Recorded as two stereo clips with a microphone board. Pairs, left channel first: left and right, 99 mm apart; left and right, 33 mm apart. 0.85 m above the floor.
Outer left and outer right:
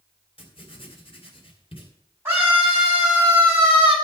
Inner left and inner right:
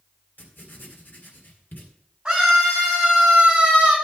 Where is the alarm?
I don't hear an alarm.